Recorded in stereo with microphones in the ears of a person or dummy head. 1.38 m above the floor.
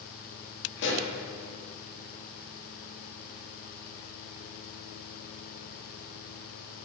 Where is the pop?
65° left (ahead or behind), 3 m.